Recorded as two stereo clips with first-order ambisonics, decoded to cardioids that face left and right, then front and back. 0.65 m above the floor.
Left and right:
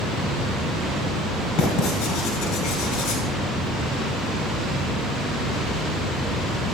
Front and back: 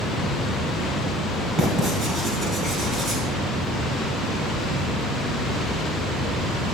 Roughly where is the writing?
Behind left.